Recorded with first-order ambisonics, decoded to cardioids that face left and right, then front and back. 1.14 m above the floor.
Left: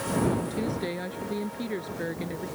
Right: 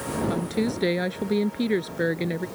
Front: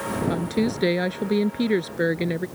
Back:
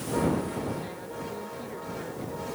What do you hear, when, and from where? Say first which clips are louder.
0.3 s a woman speaking: right 3 dB, front 5 dB; 30° right